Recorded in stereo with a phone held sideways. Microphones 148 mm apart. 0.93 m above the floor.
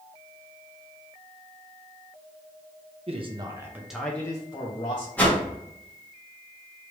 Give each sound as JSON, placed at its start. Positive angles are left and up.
{"t": 3.1, "sound": "a man speaking", "side_deg": -45, "distance_m": 0.9}
{"t": 5.2, "sound": "a whoosh", "side_deg": 10, "distance_m": 1.2}